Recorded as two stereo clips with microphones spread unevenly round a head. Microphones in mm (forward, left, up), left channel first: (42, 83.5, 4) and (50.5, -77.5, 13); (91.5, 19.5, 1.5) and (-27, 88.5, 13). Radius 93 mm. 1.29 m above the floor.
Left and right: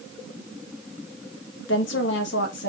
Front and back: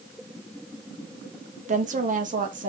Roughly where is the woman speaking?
Behind left.